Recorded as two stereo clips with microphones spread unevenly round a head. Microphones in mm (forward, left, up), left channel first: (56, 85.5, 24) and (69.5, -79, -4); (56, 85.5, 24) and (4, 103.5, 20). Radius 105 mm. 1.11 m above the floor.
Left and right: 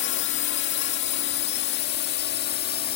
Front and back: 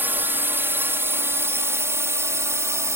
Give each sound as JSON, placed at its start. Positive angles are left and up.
{"t": 0.0, "sound": "a drone", "azimuth_deg": 115}